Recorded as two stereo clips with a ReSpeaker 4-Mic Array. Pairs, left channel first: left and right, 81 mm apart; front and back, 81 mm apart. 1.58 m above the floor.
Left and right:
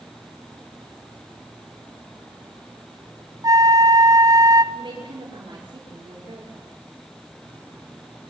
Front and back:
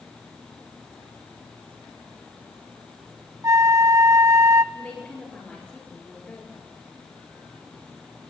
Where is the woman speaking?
70° right, 6 m.